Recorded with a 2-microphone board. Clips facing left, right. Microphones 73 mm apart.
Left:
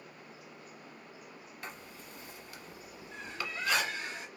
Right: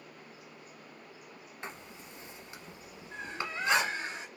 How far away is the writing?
About 1.0 m.